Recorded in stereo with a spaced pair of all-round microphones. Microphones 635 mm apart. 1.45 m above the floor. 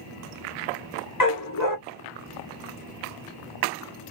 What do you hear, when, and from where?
1.2 s a dog barking: 30° left (ahead or behind), 1.1 m